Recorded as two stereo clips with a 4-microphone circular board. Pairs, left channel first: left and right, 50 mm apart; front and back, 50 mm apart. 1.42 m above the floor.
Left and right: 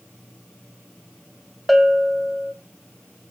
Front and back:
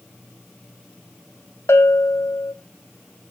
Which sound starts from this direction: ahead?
A bell, at 1.7 s.